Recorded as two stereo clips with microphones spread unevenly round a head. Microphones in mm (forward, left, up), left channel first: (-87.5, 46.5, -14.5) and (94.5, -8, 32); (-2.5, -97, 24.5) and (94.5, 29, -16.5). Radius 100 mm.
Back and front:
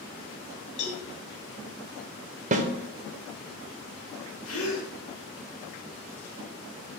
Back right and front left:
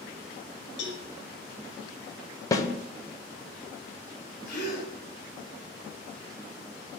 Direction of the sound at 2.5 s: 50° right.